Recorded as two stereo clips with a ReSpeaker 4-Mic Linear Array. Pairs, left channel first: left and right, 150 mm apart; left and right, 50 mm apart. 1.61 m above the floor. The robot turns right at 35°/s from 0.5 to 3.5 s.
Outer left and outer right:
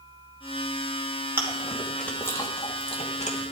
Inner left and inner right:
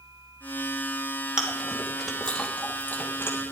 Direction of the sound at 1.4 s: 15° right (ahead or behind).